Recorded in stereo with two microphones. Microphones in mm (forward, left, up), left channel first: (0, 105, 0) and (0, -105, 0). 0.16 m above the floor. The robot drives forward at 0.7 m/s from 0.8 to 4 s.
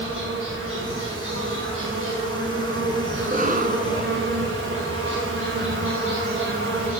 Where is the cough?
40° right (ahead or behind), 1.6 m; by 4.3 s 45° right (ahead or behind), 1.5 m.